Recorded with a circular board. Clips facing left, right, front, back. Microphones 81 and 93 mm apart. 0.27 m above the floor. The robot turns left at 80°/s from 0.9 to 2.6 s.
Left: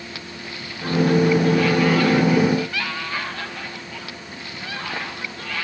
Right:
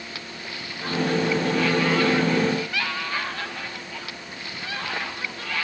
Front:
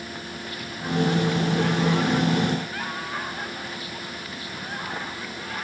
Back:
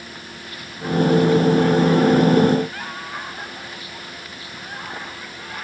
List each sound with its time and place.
Only background noise.